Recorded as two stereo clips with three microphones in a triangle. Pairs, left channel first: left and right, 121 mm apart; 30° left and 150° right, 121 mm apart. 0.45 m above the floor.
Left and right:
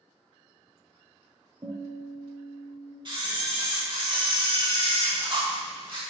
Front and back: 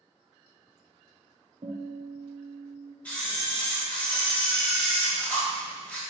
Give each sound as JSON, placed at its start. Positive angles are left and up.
{"t": 1.6, "sound": "a guitar", "azimuth_deg": -140, "distance_m": 0.9}
{"t": 3.0, "sound": "a camera shutter", "azimuth_deg": -50, "distance_m": 1.4}